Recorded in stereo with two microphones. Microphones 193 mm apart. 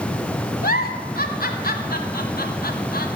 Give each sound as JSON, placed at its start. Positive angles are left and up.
{"t": 0.6, "sound": "a giggle", "side_deg": 50, "distance_m": 1.4}